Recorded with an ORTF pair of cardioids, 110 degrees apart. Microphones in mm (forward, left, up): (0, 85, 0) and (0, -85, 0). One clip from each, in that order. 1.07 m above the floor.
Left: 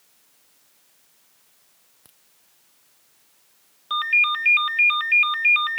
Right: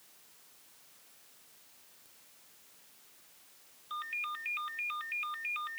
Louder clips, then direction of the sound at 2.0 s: Left 4 dB; 65° left.